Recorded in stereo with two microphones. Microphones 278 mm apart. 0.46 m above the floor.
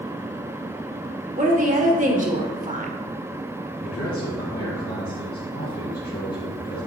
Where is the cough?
No cough in this recording.